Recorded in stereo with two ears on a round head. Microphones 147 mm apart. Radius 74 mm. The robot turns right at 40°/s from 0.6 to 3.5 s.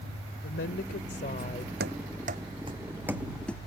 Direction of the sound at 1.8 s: 65° right (ahead or behind).